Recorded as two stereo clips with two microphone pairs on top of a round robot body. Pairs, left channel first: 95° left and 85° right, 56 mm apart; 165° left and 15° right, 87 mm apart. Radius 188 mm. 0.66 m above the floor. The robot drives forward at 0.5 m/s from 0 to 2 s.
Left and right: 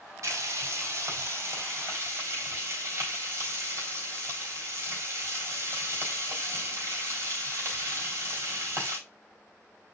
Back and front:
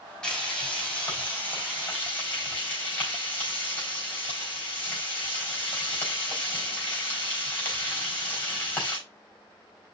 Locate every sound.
0.2 s frying: 110° right, 4 m; by 9.0 s 125° right, 4 m